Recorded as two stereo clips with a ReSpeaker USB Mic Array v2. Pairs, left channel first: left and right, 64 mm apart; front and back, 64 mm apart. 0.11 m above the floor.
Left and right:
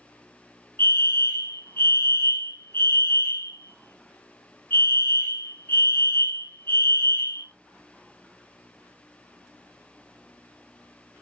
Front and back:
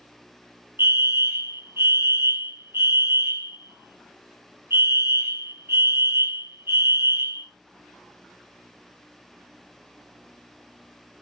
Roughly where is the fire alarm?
Behind left.